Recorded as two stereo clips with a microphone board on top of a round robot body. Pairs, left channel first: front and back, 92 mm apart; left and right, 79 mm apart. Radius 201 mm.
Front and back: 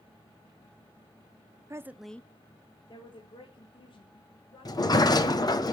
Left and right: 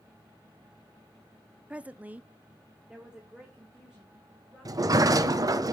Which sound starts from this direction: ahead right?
A sliding door, at 4.7 s.